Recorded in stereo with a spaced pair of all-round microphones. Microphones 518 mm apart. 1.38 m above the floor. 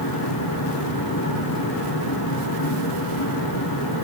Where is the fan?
40° left (ahead or behind), 8 m.